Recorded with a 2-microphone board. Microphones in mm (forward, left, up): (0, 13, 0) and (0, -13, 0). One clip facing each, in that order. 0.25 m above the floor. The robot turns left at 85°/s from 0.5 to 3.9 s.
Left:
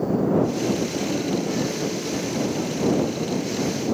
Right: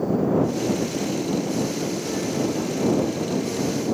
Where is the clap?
I don't hear a clap.